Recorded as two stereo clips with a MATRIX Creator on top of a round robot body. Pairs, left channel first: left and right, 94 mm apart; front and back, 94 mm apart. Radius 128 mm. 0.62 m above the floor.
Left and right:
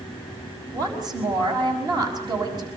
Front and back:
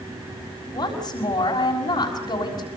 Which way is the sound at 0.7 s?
50° right.